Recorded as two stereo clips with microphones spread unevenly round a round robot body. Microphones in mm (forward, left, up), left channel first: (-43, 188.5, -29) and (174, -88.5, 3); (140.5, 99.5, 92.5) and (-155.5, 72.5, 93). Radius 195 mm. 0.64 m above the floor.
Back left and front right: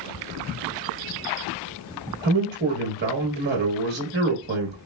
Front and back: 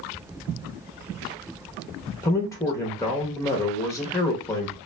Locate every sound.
2.2 s a man speaking: 55° right, 0.8 m